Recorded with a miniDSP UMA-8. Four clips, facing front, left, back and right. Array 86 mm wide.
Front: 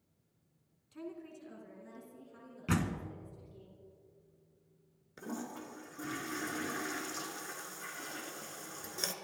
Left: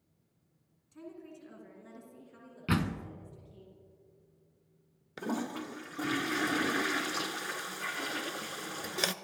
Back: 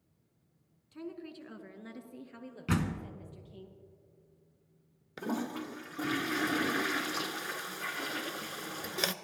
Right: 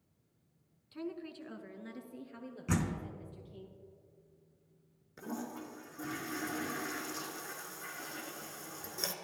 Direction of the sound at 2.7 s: 100° left.